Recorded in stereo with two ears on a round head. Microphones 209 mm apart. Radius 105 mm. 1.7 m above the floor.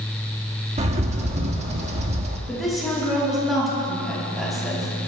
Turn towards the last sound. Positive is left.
turn(degrees=0)  # may be behind; listen again after turning